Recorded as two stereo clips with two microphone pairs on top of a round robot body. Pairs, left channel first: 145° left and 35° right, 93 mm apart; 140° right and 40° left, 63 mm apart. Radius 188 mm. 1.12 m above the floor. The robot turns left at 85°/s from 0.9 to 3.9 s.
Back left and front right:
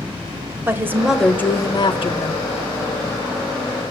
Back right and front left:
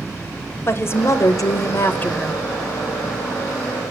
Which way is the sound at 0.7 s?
100° right.